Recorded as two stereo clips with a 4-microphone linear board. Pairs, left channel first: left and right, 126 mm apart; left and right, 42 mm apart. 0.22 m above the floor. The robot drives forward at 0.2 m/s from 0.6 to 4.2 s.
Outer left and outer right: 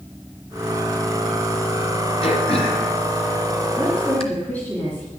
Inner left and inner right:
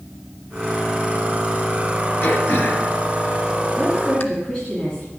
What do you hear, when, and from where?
2.2 s throat clearing: 50° left (ahead or behind), 1.9 m
3.8 s a woman speaking: 15° left (ahead or behind), 3 m